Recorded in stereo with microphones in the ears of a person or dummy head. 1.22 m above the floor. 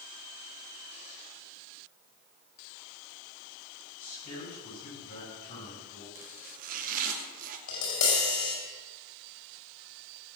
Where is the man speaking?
55° left (ahead or behind), 6.5 m.